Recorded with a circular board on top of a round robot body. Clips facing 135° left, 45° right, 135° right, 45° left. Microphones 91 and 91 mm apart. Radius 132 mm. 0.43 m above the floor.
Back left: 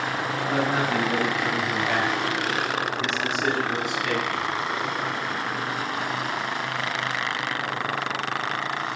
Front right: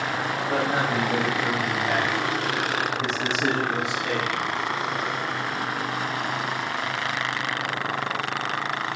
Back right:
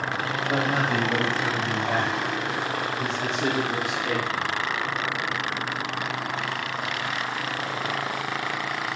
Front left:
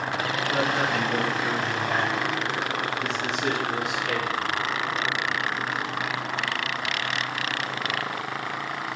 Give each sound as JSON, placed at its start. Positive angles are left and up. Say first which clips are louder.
{"t": 0.5, "sound": "a man speaking", "louder": "back left 1 dB, back right 1 dB", "azimuth_deg": -120, "distance_m": 3.0}